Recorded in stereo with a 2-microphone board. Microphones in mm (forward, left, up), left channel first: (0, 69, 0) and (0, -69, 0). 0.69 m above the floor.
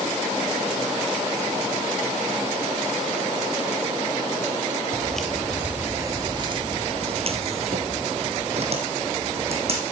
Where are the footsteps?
10° left (ahead or behind), 1.0 m; by 9.8 s 50° right (ahead or behind), 2.5 m.